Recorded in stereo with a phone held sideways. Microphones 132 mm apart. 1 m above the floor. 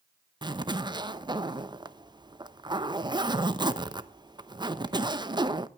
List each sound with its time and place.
0.4 s a zipper: 35° right (ahead or behind), 0.8 m